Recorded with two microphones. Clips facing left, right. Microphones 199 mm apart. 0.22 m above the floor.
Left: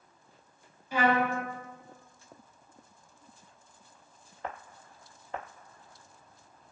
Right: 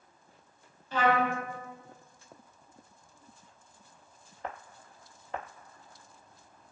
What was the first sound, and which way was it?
A trumpet, 10° left (ahead or behind).